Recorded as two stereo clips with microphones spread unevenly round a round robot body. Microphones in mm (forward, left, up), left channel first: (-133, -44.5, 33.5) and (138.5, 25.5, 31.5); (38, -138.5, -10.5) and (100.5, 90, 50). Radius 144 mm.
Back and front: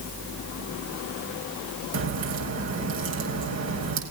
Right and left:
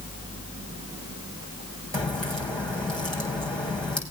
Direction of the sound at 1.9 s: 20° right.